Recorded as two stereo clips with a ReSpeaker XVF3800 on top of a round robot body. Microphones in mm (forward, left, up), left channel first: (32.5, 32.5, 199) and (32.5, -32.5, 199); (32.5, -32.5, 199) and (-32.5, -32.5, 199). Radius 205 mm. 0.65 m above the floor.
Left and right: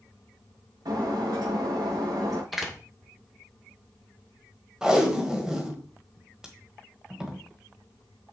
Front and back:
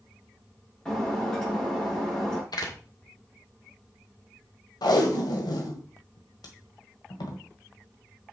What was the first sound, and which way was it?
Breaking glass, 80° right.